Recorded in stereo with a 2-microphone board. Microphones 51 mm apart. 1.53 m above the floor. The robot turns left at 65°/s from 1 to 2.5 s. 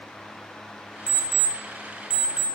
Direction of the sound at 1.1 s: 15° left (ahead or behind).